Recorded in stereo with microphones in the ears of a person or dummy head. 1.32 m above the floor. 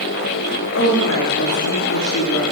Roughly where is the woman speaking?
Left.